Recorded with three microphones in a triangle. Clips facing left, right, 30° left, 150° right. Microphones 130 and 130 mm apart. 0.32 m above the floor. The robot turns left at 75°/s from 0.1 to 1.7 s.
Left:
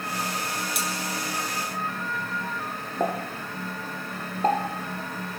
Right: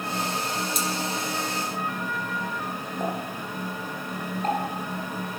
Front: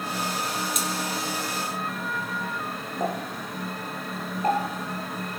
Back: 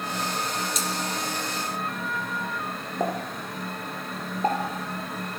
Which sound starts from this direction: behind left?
A pop, at 3.0 s.